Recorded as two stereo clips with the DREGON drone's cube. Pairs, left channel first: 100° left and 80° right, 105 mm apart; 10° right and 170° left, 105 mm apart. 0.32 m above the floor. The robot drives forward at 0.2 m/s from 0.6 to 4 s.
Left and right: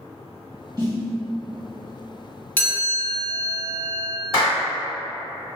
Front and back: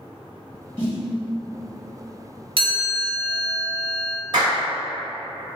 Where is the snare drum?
70° right, 1.5 m; by 1.1 s 75° right, 1.5 m.